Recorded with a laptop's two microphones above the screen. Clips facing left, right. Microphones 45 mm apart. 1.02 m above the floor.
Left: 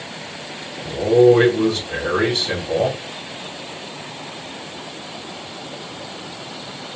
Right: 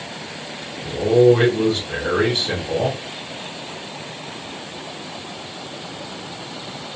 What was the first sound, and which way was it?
A man speaking, 5° right (ahead or behind).